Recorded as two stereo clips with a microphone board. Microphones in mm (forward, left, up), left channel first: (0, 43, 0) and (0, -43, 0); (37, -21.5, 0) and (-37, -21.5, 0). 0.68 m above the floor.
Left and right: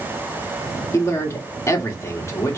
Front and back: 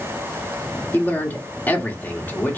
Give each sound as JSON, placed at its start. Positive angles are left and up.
{"t": 0.9, "sound": "a man speaking", "azimuth_deg": 55, "distance_m": 1.4}